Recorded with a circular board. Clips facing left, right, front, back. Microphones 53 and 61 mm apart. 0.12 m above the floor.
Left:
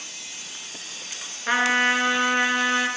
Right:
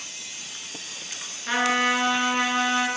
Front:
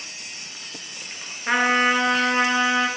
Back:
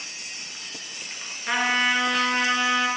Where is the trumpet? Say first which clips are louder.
Left 2 dB, front 4 dB; 50° left, 1.0 m.